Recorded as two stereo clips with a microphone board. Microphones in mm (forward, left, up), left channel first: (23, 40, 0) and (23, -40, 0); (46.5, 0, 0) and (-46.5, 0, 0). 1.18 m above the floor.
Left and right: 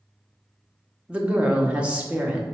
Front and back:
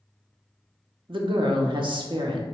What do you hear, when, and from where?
1.1 s a woman speaking: 165° right, 0.7 m